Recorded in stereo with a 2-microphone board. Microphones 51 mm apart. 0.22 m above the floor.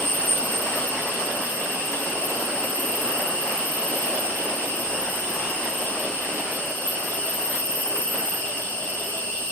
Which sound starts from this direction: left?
An insect, at 0.0 s.